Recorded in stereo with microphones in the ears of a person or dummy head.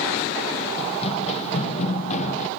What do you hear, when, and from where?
0.8 s running footsteps: 30° left (ahead or behind); by 2.5 s 35° left (ahead or behind)